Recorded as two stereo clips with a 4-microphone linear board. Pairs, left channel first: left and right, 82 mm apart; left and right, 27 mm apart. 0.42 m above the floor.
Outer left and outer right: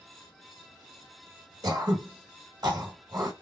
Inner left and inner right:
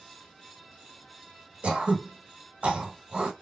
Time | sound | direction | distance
1.6 | throat clearing | 60° right (ahead or behind) | 1.4 m